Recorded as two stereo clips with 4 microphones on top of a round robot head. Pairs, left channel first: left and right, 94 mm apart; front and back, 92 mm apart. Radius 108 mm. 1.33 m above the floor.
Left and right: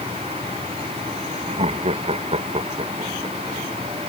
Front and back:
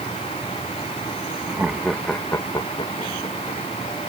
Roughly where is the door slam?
I don't hear a door slam.